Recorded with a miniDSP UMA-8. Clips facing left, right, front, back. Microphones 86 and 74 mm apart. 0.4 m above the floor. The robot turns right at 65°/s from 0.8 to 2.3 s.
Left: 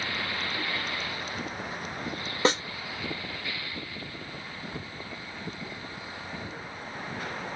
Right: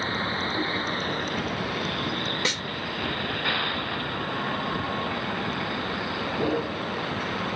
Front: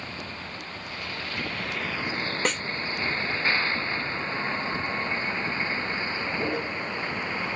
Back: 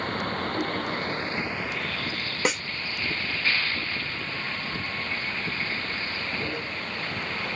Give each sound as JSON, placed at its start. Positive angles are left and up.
{"t": 0.0, "sound": "a vehicle", "azimuth_deg": -145}
{"t": 2.5, "sound": "a snare drum", "azimuth_deg": 100}